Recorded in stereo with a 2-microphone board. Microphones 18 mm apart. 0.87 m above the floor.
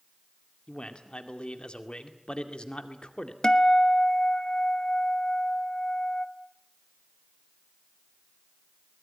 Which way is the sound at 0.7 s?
55° left (ahead or behind).